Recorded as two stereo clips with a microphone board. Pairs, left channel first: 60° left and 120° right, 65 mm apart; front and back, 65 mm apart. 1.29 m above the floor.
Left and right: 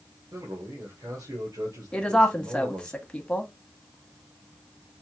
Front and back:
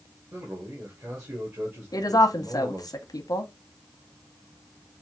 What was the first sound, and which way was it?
A man speaking, 140° right.